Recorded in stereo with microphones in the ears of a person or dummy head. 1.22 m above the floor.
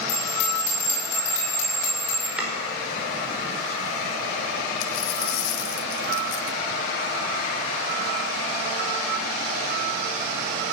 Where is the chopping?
5° right (ahead or behind), 5 m.